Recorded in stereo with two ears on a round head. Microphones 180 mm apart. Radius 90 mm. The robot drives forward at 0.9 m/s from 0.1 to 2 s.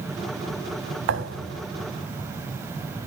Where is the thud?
65° right (ahead or behind), 1.9 m; by 1.6 s 80° right, 1.7 m.